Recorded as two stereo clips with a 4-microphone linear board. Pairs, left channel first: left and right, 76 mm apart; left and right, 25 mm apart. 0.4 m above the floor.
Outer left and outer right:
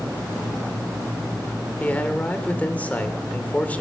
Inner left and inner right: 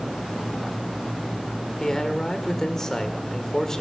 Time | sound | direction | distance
1.8 | a man speaking | 20° left (ahead or behind) | 1.2 m